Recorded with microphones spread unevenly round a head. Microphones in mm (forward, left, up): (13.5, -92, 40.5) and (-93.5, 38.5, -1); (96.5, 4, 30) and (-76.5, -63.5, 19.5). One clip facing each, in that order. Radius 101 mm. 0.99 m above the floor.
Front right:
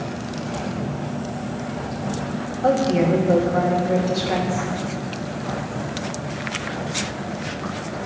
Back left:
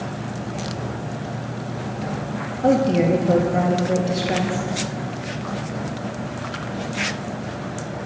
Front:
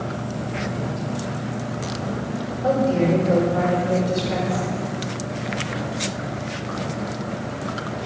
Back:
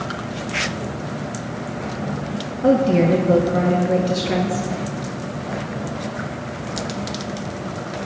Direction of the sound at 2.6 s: 165° right.